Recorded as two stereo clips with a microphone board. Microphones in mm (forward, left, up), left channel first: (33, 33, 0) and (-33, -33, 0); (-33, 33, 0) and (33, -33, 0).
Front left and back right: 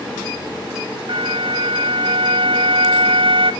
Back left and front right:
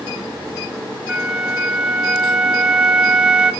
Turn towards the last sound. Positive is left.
turn(degrees=-125)